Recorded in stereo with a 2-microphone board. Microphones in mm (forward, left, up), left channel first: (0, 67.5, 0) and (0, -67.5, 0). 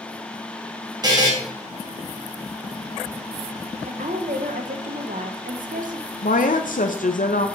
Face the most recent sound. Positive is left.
turn(degrees=80)